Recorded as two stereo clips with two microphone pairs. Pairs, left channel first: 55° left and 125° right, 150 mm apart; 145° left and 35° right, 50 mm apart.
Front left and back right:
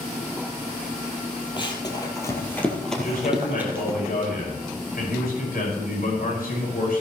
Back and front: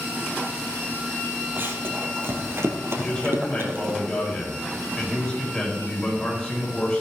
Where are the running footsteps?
Straight ahead, 2.5 m; by 4.0 s 60° right, 2.5 m.